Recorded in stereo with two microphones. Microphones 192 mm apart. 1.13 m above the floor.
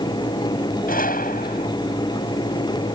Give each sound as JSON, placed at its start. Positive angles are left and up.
{"t": 0.9, "sound": "a gunshot", "side_deg": 50}